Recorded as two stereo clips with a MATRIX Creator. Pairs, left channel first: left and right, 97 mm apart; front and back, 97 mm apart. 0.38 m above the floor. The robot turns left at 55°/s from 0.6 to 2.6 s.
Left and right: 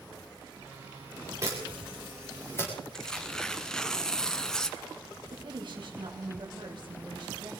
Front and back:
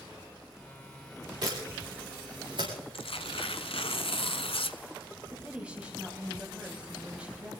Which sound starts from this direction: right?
A woman speaking, at 5.3 s.